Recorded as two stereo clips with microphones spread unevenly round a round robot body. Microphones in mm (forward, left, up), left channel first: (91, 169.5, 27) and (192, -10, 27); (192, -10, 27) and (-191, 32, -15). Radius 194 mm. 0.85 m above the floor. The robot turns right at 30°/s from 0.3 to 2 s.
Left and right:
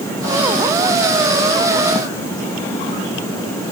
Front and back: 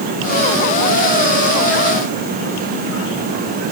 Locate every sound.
Only background noise.